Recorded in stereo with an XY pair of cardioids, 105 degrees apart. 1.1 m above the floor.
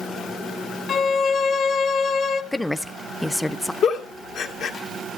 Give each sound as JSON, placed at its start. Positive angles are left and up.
{"t": 0.9, "sound": "a violin", "azimuth_deg": 50, "distance_m": 1.1}
{"t": 2.5, "sound": "a woman speaking", "azimuth_deg": 10, "distance_m": 0.5}
{"t": 3.8, "sound": "a giggle", "azimuth_deg": 70, "distance_m": 1.9}